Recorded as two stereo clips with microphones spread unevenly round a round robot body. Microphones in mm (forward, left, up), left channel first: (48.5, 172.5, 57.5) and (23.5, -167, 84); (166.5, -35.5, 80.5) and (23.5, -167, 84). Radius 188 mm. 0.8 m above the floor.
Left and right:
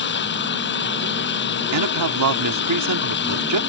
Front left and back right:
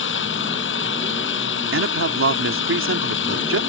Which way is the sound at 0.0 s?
25° left.